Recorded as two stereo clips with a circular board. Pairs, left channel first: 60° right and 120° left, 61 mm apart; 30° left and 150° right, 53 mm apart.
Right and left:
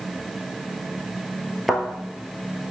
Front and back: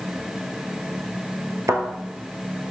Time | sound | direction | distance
1.7 | a thud | 155° right | 1.3 m